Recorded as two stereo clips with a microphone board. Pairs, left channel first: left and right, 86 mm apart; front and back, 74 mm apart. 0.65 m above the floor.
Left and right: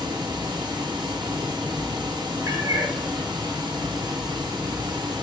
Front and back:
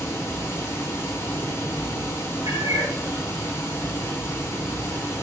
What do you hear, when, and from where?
0.0 s running water: 55° right, 0.7 m
2.5 s a cat meowing: 140° right, 1.0 m